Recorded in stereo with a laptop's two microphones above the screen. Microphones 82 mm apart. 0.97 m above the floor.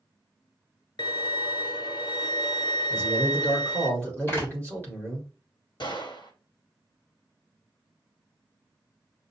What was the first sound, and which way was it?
A violin, 55° left (ahead or behind).